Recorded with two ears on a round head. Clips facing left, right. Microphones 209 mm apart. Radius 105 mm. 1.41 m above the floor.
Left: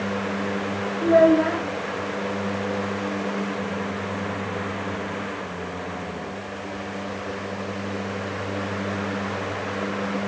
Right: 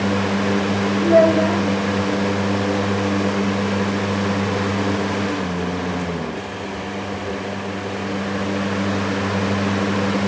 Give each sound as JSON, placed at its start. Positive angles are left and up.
{"t": 1.0, "sound": "a child speaking", "side_deg": 15, "distance_m": 3.5}